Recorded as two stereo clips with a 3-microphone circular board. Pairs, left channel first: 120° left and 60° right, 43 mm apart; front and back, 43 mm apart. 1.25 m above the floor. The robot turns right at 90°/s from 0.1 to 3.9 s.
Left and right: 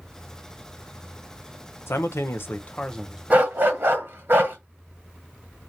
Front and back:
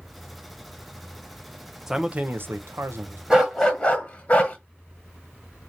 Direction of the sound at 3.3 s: 110° right.